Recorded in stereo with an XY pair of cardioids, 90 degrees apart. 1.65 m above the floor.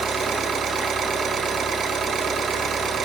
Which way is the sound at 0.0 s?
60° right.